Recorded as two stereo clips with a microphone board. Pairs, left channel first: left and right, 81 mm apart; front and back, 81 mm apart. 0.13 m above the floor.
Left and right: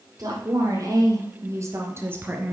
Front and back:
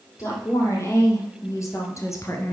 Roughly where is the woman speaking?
Ahead right.